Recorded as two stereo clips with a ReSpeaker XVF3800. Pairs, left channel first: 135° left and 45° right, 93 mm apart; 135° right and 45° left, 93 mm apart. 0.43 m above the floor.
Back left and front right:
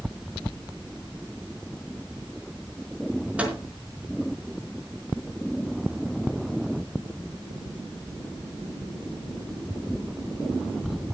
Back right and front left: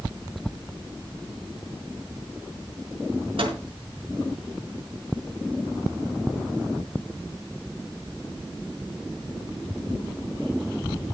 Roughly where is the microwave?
Ahead left.